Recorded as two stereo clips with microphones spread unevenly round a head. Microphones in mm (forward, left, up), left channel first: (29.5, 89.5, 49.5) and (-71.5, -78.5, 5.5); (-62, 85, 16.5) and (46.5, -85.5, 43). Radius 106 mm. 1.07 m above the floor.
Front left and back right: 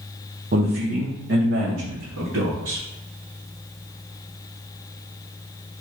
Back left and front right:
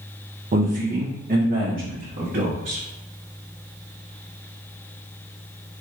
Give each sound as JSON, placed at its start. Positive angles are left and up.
{"t": 0.5, "sound": "a man speaking", "azimuth_deg": -110, "distance_m": 0.7}